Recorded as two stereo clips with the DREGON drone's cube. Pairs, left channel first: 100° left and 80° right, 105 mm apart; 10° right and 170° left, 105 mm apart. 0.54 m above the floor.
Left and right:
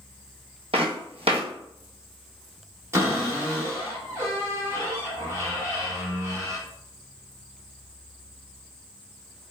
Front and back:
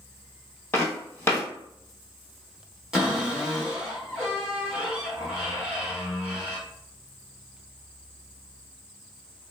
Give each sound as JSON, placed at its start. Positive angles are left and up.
{"t": 0.7, "sound": "footsteps", "azimuth_deg": -80, "distance_m": 1.4}
{"t": 2.9, "sound": "a cupboard door", "azimuth_deg": -110, "distance_m": 1.4}